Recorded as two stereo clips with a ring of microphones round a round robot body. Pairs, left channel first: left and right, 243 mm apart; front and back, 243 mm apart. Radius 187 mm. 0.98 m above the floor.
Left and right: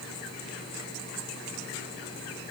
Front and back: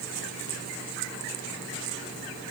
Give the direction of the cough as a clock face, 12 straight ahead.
I don't hear a cough.